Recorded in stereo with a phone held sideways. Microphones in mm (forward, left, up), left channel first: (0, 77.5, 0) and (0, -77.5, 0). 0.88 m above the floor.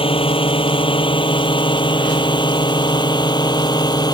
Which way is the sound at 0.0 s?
35° left (ahead or behind).